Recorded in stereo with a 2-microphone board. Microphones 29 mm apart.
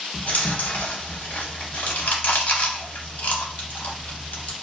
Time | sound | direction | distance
0.1 | chewing | 75° left (ahead or behind) | 0.7 m